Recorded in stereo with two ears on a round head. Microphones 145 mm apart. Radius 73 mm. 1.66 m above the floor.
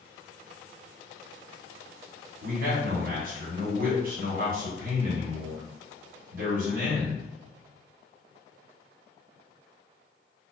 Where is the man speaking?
60° right (ahead or behind), 1.1 m.